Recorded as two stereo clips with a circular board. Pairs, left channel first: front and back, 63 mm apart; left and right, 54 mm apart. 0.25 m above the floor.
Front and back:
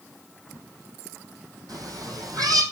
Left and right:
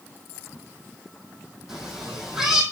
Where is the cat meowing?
170° right, 2.5 m.